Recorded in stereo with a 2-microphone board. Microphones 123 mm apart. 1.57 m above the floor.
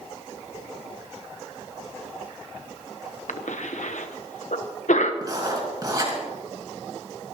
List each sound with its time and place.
3.3 s a cough: 80° left, 1.0 m
5.2 s writing: 35° right (ahead or behind), 4 m